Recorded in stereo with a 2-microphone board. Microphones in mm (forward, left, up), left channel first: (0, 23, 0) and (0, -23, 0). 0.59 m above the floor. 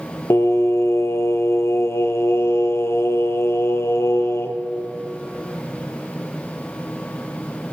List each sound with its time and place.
0.3 s singing: 75° left (ahead or behind), 0.6 m